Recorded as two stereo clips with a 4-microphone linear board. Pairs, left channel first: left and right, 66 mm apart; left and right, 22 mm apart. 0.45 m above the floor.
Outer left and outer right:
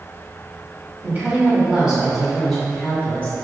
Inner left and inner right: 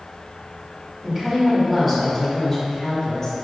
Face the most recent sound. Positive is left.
turn(degrees=25)  # may be behind; listen again after turning